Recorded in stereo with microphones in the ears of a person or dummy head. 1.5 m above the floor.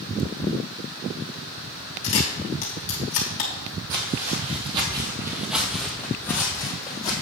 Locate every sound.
2.0 s a camera shutter: 40° left (ahead or behind), 1.3 m
3.9 s footsteps: 45° right (ahead or behind), 2 m; by 7.1 s 25° left (ahead or behind), 2.5 m